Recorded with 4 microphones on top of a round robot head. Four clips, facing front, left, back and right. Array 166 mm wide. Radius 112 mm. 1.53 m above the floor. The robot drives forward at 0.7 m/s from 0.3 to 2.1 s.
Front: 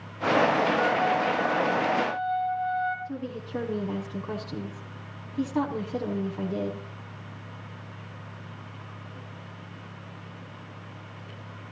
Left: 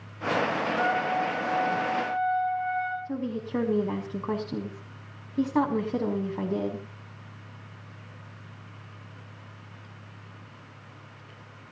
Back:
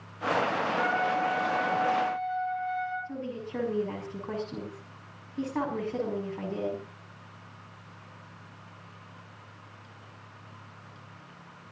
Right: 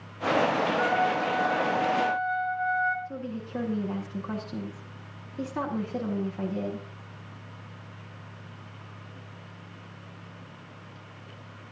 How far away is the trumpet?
About 9 m.